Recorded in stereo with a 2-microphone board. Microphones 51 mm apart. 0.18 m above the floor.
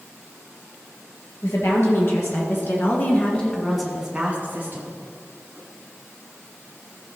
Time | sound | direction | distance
1.4 | a woman speaking | 60° left (ahead or behind) | 3.5 m